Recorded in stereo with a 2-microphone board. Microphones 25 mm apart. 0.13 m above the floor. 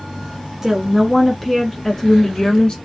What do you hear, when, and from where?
0.6 s a woman speaking: 20° right (ahead or behind), 1.1 m; by 2.8 s 35° left (ahead or behind), 1.2 m